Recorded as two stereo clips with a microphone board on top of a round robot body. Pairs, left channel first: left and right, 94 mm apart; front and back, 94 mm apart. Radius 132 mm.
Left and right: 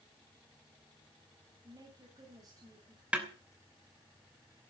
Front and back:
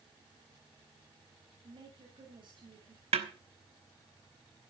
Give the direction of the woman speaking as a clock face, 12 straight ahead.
5 o'clock.